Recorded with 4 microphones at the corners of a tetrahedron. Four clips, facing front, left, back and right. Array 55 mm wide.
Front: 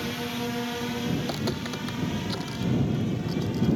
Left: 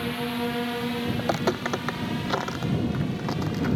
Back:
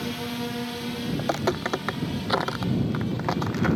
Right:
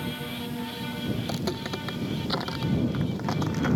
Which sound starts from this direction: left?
A drone, at 0.0 s.